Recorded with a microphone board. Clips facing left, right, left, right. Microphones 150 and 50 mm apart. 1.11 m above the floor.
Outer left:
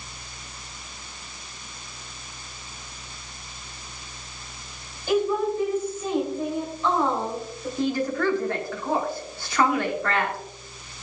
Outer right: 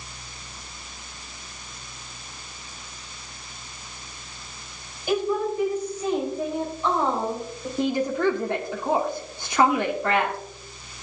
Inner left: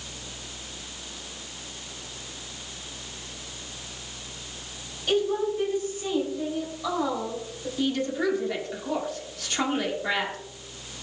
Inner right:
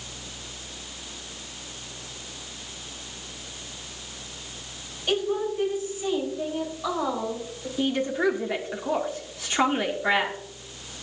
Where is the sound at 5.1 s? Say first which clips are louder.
Outer left 1 dB, inner left 1 dB; 15° right (ahead or behind), 4.5 m.